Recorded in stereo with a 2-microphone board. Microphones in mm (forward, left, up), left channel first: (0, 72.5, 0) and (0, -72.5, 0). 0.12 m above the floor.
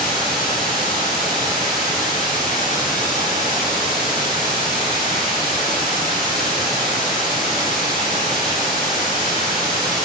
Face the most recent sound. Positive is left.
turn(degrees=-35)  # may be behind; listen again after turning